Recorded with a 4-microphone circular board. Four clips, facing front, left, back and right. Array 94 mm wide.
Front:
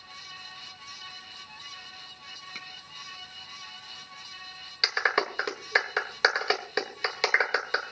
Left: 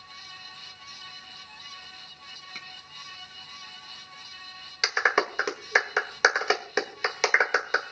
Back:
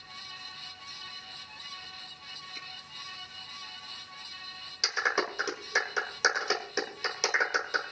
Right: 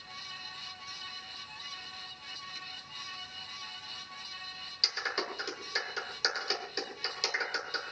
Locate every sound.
2.5 s a finger snap: 40° left, 4 m
4.8 s a clap: 65° left, 1.6 m